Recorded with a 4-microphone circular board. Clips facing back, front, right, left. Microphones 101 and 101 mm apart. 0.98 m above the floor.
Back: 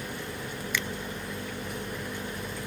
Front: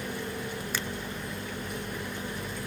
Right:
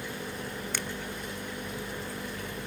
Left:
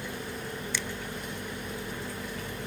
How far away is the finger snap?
About 0.6 m.